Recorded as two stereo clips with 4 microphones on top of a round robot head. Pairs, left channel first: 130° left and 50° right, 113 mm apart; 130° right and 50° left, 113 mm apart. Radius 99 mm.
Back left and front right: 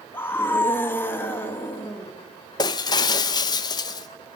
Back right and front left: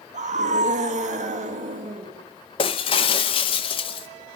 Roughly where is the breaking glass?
Behind.